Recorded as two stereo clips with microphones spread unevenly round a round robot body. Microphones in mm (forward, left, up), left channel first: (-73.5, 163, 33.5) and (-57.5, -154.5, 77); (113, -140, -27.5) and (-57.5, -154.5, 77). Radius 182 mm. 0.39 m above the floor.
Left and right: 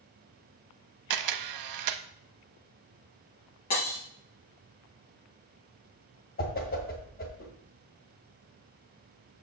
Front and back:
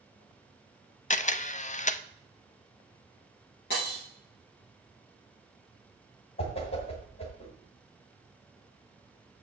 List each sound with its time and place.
1.1 s a camera shutter: 50° right, 0.6 m
3.7 s breaking glass: 40° left, 3 m
6.4 s a whoosh: 35° left, 1.6 m